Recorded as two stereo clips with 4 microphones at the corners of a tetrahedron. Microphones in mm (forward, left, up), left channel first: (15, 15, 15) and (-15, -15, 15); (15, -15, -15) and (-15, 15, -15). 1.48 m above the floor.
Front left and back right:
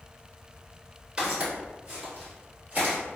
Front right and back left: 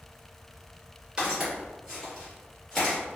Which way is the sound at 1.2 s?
175° right.